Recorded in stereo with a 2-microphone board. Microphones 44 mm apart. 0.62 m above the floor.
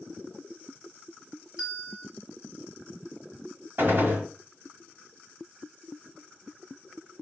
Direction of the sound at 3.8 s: 50° right (ahead or behind).